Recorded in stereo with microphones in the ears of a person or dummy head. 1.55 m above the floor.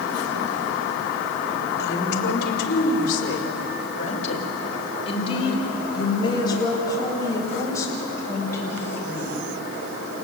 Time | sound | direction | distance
1.8 | a woman speaking | 65° left (ahead or behind) | 3.5 m